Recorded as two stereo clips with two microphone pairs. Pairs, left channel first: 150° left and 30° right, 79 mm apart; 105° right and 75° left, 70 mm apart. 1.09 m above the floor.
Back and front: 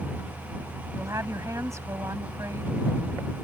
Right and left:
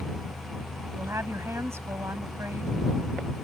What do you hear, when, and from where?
0.9 s a woman speaking: 25° left